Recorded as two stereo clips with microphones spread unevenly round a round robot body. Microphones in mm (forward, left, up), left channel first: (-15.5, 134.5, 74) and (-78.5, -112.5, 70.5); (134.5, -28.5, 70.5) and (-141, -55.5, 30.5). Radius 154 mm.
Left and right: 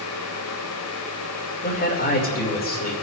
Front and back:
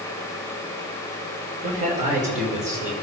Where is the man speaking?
125° left, 2 m.